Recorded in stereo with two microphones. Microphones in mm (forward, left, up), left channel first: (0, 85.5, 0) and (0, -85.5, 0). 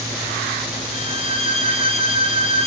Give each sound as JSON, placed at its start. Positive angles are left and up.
{"t": 0.9, "sound": "a violin", "side_deg": -35, "distance_m": 3.0}